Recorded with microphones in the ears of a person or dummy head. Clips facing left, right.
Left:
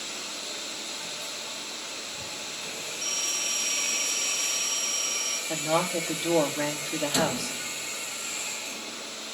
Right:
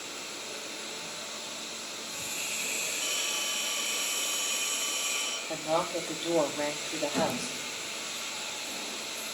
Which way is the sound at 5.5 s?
10° left (ahead or behind).